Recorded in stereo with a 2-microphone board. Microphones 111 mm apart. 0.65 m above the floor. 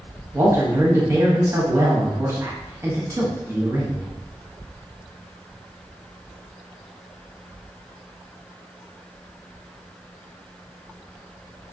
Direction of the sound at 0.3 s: 25° right (ahead or behind).